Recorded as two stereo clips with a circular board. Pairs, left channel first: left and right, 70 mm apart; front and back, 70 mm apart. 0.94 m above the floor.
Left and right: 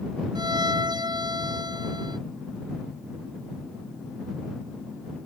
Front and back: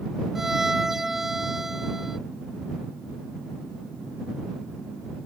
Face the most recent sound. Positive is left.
turn(degrees=-95)